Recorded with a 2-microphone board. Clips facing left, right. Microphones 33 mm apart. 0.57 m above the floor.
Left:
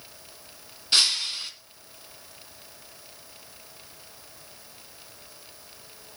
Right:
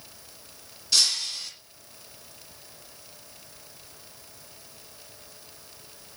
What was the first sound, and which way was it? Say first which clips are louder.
Breaking glass: left 2 dB; 35° left (ahead or behind).